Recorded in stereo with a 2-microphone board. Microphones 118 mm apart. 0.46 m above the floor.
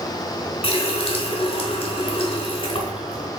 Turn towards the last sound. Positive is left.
turn(degrees=50)  # may be behind; listen again after turning